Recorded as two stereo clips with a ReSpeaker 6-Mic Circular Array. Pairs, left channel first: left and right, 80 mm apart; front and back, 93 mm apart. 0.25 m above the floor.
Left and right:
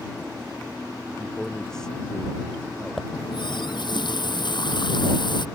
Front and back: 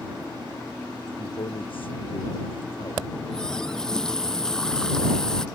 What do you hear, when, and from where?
1.2 s a man speaking: 5° left; by 3.0 s 10° left
3.1 s a running tap: 85° left